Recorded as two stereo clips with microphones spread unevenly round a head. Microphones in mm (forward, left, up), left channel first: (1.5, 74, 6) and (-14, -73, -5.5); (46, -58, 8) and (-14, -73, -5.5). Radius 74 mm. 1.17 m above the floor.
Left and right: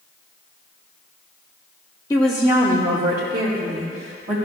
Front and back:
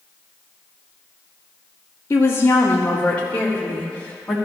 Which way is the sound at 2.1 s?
30° left.